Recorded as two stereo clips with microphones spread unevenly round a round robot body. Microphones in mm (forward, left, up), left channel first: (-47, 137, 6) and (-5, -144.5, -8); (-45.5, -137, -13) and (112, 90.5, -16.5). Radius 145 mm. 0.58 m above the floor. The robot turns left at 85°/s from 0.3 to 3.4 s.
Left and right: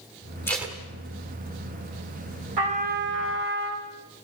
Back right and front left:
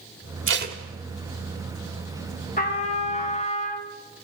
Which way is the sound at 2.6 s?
65° right.